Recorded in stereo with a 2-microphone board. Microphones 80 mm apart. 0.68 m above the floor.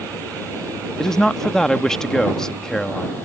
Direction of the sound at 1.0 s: 10° left (ahead or behind).